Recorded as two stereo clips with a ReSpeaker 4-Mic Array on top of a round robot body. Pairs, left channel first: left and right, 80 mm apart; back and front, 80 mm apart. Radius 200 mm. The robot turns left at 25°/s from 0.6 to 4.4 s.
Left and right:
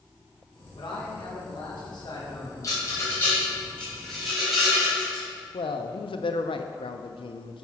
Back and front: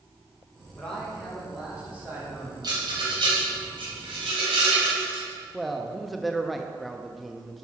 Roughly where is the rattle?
Ahead left.